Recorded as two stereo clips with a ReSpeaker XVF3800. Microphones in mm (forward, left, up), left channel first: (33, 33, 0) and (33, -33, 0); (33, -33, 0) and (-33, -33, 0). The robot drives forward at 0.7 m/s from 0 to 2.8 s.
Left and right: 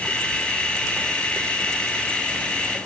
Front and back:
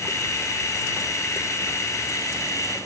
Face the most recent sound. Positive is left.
No sound to turn to.